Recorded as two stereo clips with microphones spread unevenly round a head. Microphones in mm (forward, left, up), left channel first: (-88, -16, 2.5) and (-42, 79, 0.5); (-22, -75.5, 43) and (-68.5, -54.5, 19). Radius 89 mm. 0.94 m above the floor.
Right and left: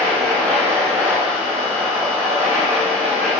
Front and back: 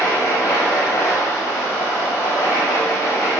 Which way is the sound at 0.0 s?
15° right.